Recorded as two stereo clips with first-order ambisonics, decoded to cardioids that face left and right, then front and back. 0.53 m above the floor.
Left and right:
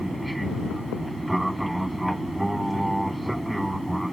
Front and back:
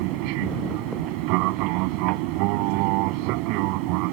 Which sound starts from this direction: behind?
An aircraft, at 0.0 s.